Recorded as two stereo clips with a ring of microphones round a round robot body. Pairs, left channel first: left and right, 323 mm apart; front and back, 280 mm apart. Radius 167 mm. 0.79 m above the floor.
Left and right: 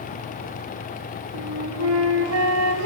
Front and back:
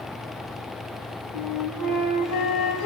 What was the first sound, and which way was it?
A flute, 40° right.